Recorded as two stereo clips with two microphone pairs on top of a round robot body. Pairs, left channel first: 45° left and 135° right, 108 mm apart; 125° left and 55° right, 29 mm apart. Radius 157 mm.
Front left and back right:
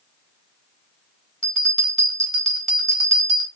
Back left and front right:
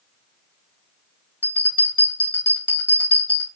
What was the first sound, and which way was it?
A bell, 125° left.